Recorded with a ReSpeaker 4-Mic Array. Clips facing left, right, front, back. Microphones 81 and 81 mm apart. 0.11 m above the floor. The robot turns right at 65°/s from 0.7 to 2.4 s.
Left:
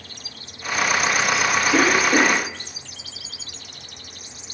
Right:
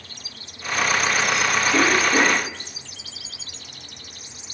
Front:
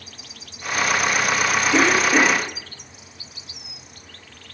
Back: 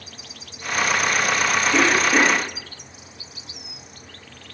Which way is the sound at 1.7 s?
60° left.